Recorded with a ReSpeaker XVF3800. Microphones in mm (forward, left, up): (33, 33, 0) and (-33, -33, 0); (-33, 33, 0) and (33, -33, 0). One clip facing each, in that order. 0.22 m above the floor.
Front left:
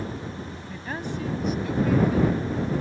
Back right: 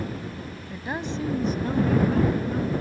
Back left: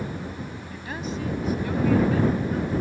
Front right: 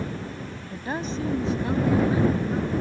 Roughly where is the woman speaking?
Ahead right.